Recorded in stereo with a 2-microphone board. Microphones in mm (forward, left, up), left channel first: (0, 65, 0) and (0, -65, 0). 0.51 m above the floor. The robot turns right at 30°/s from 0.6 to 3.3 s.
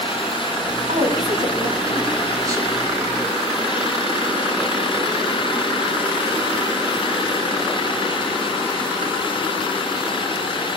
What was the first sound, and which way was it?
A woman speaking, 70° right (ahead or behind).